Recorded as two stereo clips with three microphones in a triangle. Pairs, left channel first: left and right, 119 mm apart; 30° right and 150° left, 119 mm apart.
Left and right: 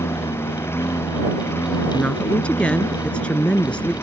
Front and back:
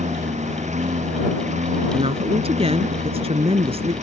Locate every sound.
0.0 s a lawn mower: 160° left
1.9 s a woman speaking: 170° left